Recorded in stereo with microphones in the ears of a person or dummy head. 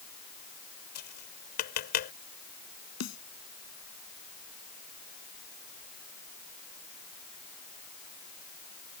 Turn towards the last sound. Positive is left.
turn(degrees=70)  # may be behind; listen again after turning